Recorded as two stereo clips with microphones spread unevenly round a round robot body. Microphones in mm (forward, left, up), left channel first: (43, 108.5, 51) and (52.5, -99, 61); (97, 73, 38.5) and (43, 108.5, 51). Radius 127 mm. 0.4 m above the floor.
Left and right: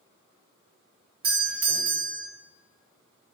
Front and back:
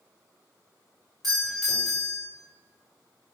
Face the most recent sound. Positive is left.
turn(degrees=-100)